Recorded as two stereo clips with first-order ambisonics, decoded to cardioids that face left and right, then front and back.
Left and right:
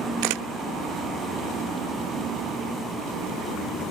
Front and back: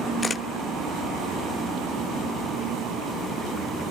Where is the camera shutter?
75° right, 0.8 m.